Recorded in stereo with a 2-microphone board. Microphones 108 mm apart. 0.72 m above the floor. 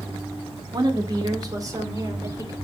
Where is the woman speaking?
40° right (ahead or behind), 1.7 m; by 2.5 s 35° right (ahead or behind), 3 m.